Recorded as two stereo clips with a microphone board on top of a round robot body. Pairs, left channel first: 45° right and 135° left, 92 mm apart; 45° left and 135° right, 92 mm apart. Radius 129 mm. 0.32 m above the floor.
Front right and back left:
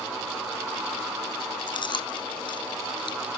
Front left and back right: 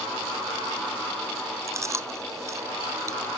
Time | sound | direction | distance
1.7 | chewing | 75° right | 1.2 m